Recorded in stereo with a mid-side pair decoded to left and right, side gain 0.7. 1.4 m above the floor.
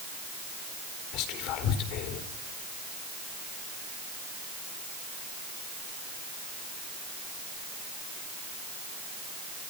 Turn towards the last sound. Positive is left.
turn(degrees=65)